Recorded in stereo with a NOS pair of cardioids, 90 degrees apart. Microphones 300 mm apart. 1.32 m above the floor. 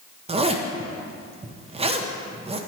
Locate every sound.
0.3 s a zipper: 20° right, 0.6 m